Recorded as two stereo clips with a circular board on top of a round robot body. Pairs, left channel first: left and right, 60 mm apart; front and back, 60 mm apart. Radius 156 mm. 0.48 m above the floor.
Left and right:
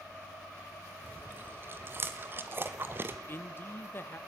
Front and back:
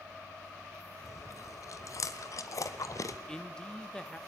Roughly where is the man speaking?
Left.